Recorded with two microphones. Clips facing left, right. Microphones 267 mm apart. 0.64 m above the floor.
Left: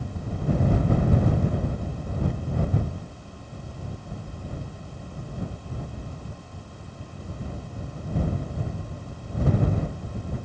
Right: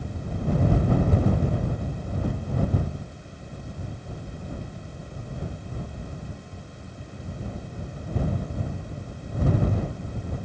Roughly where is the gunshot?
No gunshot in this recording.